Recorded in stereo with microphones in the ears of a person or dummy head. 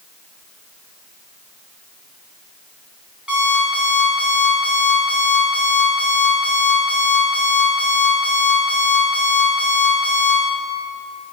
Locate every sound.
3.3 s an alarm clock: 5° right (ahead or behind), 3 m